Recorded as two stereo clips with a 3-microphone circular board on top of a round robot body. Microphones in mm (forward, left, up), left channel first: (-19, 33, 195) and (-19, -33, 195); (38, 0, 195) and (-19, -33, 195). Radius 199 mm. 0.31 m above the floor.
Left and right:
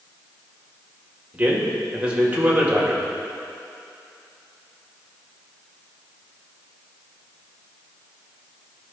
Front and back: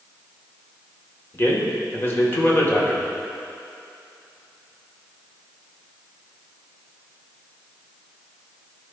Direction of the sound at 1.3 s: 20° right.